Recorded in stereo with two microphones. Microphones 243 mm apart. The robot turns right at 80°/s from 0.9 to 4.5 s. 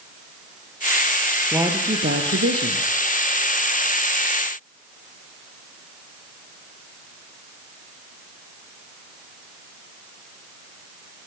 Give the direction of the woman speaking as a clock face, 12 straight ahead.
6 o'clock.